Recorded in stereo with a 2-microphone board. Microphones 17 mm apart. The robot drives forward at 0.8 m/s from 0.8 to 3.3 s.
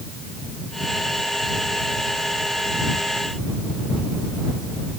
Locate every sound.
Only background noise.